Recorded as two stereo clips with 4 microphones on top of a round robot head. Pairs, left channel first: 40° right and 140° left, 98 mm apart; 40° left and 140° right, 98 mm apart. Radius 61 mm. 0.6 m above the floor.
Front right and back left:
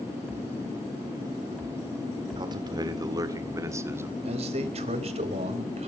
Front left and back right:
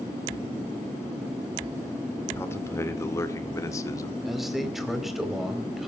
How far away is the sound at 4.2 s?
About 4 m.